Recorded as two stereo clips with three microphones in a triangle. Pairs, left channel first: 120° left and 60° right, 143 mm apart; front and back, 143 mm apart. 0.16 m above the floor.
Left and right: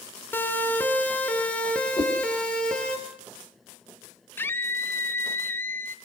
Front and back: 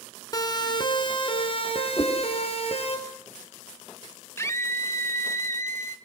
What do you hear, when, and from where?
0.3 s a siren: 50° left, 2.5 m; by 3.0 s 35° left, 4.5 m
2.0 s a whoosh: 60° left, 4.5 m
4.4 s a scream: 55° left, 1.5 m